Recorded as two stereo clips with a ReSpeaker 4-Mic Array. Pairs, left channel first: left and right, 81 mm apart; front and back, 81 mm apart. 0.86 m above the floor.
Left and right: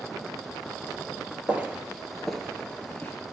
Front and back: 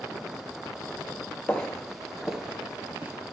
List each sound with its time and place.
1.5 s footsteps: 55° right, 0.8 m; by 3.1 s 135° left, 0.9 m